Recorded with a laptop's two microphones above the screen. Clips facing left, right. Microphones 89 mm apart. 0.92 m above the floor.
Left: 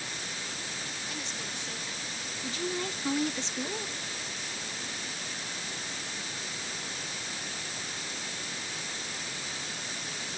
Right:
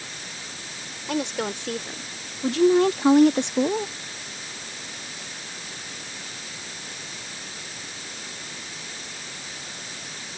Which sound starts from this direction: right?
A woman speaking, at 1.1 s.